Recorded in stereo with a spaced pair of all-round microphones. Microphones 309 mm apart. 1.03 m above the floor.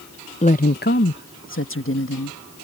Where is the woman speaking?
20° left (ahead or behind); by 2.4 s 45° left (ahead or behind).